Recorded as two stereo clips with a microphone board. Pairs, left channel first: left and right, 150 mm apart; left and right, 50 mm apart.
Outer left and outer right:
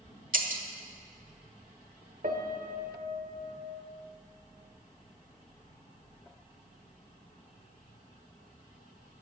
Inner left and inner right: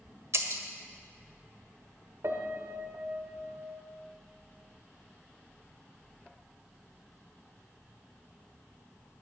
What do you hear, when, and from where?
0.3 s breaking glass: 60° right (ahead or behind), 1.3 m
2.2 s a piano: 65° right (ahead or behind), 1.2 m